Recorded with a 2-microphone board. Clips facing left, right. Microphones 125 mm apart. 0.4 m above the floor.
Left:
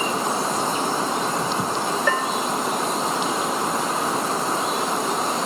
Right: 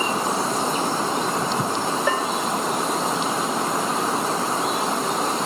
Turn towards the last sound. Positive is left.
turn(degrees=-15)  # may be behind; listen again after turning